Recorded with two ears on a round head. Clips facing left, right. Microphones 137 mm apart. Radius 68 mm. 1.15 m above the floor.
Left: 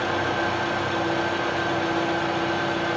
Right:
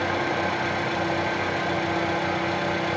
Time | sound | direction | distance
0.0 | an engine running | 15° right (ahead or behind) | 2 m